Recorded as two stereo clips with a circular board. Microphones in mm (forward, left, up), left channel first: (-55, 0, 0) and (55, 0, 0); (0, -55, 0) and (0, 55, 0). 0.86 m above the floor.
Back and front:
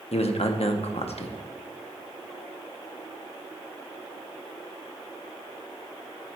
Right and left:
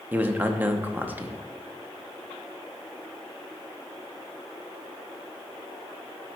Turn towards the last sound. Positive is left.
turn(degrees=160)